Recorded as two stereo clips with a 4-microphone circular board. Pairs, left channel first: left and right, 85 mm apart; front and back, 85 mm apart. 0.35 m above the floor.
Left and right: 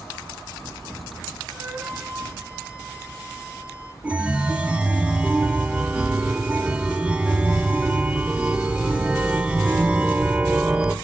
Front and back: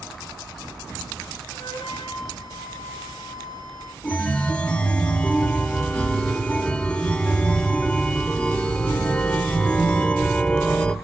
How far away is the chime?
About 0.7 m.